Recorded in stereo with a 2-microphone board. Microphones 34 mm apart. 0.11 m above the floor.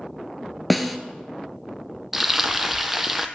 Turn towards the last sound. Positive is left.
turn(degrees=-10)  # may be behind; listen again after turning